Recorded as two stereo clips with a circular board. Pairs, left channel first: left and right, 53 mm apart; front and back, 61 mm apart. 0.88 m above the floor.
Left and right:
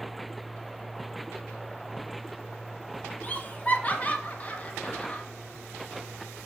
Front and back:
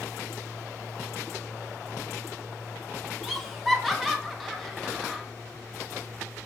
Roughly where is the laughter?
Left.